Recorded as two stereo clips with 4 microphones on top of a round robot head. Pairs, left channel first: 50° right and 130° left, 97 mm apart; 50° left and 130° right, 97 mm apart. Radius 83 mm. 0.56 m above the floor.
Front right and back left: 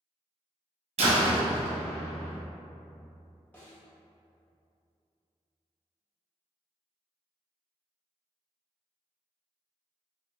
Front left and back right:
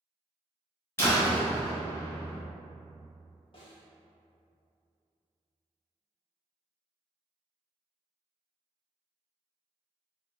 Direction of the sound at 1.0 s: 120° left.